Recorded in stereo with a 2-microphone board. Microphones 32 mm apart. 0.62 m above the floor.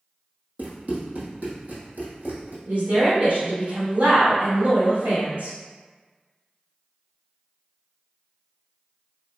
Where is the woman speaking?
60° right (ahead or behind), 1.5 m.